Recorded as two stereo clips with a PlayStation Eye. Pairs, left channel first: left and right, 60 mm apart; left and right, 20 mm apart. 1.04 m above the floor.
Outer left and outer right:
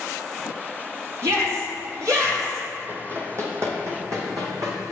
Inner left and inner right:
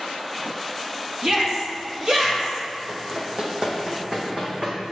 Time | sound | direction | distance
1.2 | a shout | 55° right (ahead or behind) | 1.9 m
2.9 | running footsteps | 35° right (ahead or behind) | 1.4 m